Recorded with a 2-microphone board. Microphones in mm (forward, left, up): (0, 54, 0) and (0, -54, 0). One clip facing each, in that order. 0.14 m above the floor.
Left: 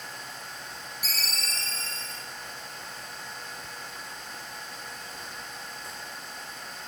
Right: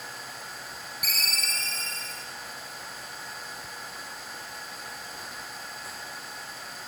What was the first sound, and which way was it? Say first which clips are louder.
A ringtone: right 2 dB; 60° right (ahead or behind).